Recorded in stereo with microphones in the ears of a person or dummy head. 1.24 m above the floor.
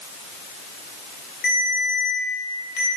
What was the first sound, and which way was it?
A ringtone, 60° left (ahead or behind).